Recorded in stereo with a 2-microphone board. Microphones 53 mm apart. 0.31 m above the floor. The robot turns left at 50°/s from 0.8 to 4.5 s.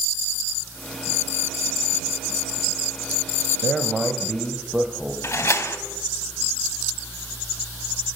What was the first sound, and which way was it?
A man speaking, 15° left.